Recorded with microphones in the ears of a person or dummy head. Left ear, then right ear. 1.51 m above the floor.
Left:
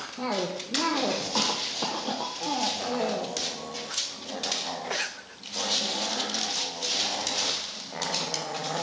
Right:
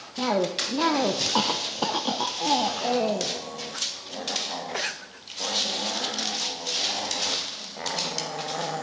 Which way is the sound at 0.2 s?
25° right (ahead or behind).